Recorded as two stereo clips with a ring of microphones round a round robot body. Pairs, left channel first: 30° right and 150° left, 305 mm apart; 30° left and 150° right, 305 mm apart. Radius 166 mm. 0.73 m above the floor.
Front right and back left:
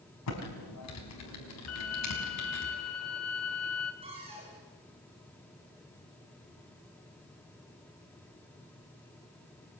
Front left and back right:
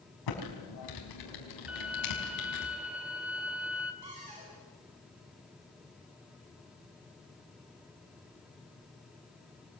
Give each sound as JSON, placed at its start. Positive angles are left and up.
{"t": 0.3, "sound": "typing on a keyboard", "azimuth_deg": 10, "distance_m": 5.0}
{"t": 1.7, "sound": "a violin", "azimuth_deg": -65, "distance_m": 2.0}
{"t": 4.0, "sound": "a cupboard door", "azimuth_deg": -135, "distance_m": 8.0}